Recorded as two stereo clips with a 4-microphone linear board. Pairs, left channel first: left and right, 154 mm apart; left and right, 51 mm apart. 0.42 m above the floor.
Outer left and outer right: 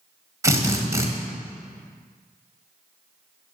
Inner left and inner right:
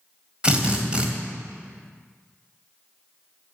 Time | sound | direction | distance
0.4 | a drill | 20° right (ahead or behind) | 1.5 m